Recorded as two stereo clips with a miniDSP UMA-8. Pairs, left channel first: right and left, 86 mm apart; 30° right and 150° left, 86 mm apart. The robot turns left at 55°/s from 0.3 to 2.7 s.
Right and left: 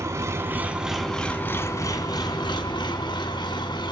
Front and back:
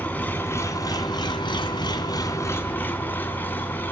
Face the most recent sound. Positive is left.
turn(degrees=-95)